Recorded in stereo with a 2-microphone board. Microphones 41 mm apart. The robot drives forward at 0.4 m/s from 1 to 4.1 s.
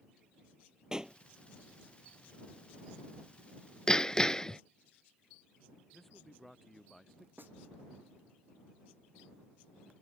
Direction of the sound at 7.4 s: 55° right (ahead or behind).